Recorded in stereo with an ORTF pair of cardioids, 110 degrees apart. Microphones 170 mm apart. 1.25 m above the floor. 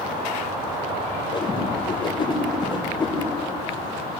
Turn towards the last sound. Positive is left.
turn(degrees=30)